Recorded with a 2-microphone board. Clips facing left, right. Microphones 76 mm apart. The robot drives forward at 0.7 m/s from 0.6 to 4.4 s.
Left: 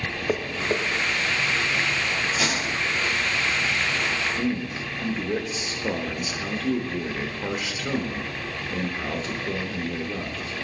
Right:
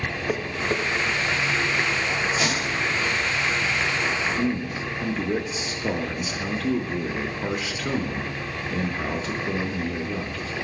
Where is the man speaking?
5° right (ahead or behind), 0.6 m.